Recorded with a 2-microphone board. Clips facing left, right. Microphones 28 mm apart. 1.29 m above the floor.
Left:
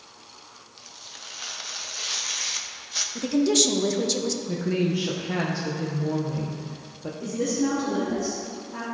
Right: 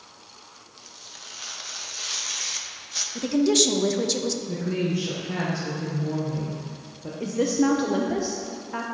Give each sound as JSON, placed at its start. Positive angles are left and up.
{"t": 0.8, "sound": "tearing paper", "side_deg": 10, "distance_m": 0.5}
{"t": 3.1, "sound": "a woman speaking", "side_deg": -5, "distance_m": 0.5}
{"t": 4.5, "sound": "a woman speaking", "side_deg": 25, "distance_m": 0.7}
{"t": 7.2, "sound": "a woman speaking", "side_deg": -55, "distance_m": 0.7}